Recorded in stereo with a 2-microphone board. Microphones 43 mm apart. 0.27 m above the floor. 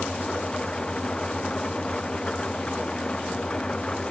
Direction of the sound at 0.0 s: 20° left (ahead or behind).